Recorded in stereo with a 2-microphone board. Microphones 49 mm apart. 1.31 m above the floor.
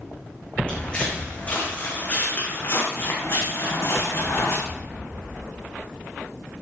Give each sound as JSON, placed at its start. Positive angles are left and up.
{"t": 0.7, "sound": "footsteps", "side_deg": 20, "distance_m": 4.5}